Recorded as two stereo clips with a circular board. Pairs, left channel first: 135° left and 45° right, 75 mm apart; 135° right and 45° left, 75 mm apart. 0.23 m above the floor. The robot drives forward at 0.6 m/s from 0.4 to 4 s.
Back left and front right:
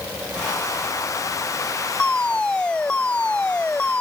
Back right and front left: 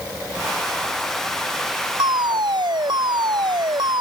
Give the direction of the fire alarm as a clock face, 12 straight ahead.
10 o'clock.